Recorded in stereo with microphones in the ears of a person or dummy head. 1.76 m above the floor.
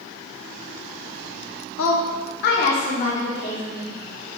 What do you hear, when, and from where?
1.8 s a woman speaking: 85° left, 0.6 m; by 4.0 s 20° left (ahead or behind), 1.2 m